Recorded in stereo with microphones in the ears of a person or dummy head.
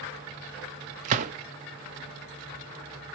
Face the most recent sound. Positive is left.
turn(degrees=-40)  # may be behind; listen again after turning